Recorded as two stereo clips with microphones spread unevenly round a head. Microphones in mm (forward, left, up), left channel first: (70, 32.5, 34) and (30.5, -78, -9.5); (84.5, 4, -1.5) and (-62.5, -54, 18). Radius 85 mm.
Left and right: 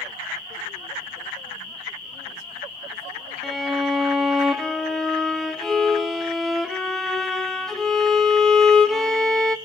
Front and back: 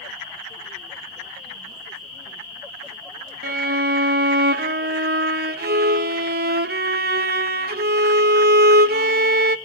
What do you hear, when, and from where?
3.4 s a violin: 160° left, 0.6 m